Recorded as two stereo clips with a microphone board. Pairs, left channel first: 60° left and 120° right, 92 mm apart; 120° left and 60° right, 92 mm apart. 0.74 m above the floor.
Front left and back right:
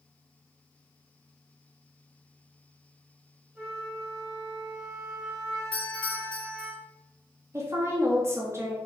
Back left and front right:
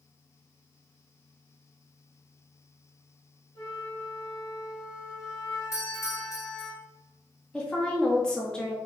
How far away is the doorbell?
About 1.3 m.